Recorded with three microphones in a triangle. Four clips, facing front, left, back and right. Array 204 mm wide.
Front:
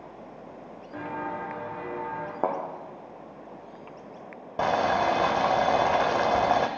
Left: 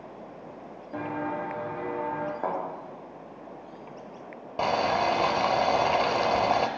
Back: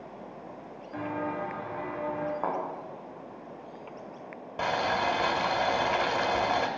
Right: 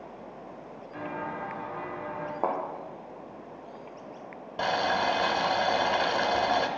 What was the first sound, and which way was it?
Footsteps, 90° left.